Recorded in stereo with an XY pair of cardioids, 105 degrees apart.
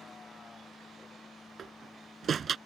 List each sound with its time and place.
0.0 s a vehicle: 35° left; by 2.7 s 15° left
1.6 s a door slam: 45° right